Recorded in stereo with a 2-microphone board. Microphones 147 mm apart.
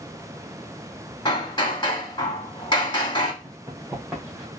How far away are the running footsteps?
About 3 m.